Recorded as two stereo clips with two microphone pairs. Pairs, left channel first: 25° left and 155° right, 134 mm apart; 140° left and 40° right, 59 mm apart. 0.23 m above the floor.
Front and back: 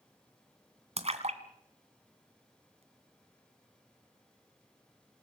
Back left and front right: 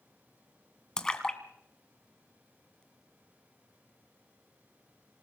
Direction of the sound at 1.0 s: 145° right.